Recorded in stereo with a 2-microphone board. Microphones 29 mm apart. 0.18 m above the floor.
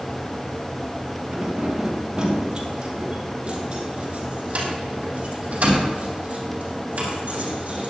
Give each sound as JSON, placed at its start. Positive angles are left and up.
{"t": 1.3, "sound": "keys jangling", "side_deg": -20, "distance_m": 3.5}